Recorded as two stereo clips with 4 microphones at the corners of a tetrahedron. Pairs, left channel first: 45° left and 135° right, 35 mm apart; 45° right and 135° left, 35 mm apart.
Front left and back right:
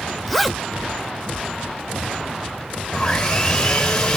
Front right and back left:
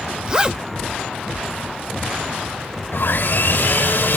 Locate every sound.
0.3 s a zipper: 115° left, 0.5 m
2.9 s sawing: 15° right, 1.3 m